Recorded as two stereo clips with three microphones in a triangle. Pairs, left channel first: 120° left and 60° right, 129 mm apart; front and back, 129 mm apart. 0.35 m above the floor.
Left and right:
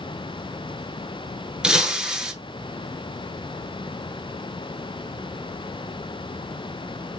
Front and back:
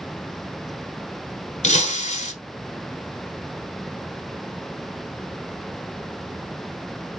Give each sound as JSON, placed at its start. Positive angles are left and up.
{"t": 1.6, "sound": "breaking glass", "azimuth_deg": 25, "distance_m": 0.8}